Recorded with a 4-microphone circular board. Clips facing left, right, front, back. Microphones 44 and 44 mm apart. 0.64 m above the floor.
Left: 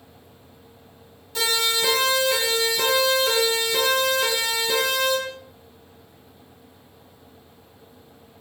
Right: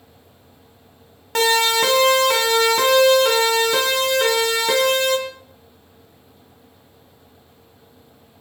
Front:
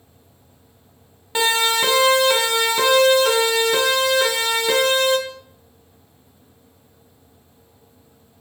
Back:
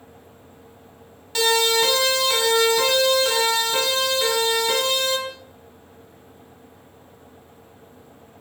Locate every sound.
1.4 s a siren: 65° right, 3.5 m; by 5.2 s 70° right, 8 m